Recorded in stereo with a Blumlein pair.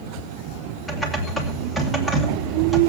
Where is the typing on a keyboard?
5° left, 2.5 m.